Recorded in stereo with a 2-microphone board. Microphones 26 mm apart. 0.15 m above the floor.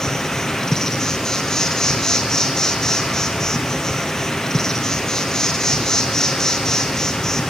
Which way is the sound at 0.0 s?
20° left (ahead or behind).